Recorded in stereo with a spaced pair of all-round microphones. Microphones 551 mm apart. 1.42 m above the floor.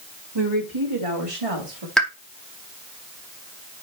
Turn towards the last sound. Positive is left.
turn(degrees=0)  # may be behind; listen again after turning